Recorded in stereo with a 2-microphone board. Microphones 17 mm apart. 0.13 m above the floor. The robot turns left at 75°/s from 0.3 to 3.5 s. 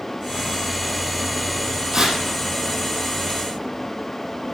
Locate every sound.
1.9 s tearing paper: 45° right (ahead or behind), 4.5 m; by 2.2 s 25° right (ahead or behind), 4.5 m